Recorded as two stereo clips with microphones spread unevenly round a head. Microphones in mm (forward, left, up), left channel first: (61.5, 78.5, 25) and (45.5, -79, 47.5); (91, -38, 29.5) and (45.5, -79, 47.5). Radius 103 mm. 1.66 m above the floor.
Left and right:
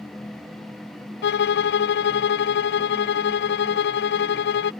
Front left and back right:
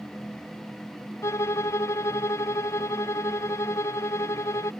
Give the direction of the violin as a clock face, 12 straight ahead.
9 o'clock.